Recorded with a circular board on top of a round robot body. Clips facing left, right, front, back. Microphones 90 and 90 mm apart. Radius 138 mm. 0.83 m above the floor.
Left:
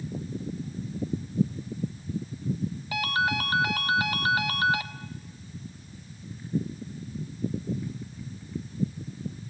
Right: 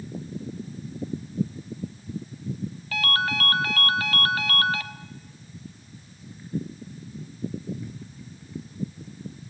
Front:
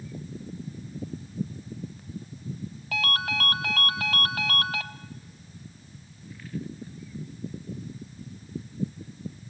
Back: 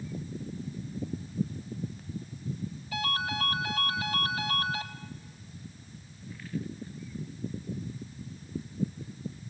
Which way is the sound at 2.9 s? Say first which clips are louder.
Even, front 3 dB; 15° left.